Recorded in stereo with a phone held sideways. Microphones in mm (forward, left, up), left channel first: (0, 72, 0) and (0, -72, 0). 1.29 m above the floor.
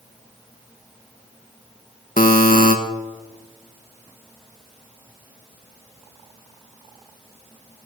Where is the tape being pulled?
I don't hear tape being pulled.